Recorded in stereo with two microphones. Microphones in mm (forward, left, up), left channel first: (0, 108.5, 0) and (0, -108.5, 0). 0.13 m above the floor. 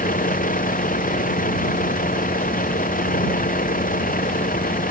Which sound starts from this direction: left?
A vehicle, at 0.0 s.